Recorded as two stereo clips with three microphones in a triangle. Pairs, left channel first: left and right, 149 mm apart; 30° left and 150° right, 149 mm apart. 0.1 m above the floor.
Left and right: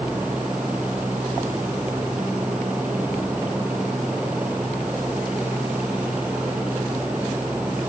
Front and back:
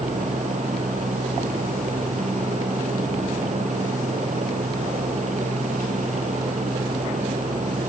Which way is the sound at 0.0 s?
170° right.